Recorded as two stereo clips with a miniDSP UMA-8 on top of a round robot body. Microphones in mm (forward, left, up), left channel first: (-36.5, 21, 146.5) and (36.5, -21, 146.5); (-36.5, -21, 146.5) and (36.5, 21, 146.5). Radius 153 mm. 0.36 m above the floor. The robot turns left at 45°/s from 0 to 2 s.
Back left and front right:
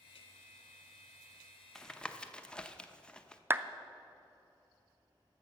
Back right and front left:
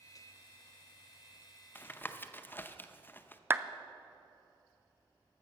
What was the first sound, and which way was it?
Tapping, 135° right.